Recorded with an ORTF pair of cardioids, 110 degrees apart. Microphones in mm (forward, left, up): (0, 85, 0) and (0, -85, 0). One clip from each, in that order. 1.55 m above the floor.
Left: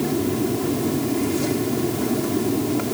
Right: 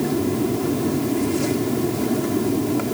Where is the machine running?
15° right.